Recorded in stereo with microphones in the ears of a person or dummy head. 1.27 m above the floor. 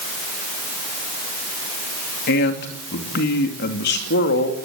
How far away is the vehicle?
No vehicle in this recording.